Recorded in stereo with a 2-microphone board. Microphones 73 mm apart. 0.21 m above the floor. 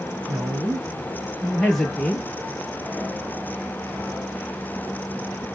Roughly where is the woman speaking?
Right.